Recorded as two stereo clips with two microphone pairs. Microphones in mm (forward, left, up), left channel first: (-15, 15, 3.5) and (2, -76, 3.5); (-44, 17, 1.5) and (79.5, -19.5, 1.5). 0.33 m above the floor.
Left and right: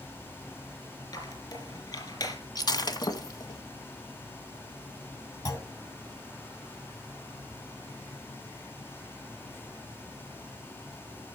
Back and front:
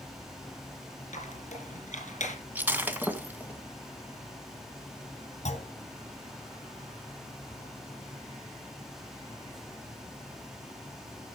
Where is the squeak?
145° left, 4 m.